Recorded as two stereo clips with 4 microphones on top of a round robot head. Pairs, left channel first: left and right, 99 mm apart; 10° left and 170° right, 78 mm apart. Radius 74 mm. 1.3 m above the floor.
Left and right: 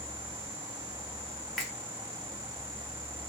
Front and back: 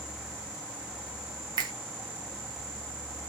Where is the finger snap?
Straight behind, 0.6 m.